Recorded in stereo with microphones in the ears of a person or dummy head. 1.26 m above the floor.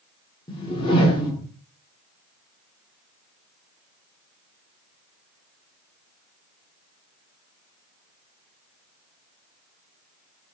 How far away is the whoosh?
About 0.6 m.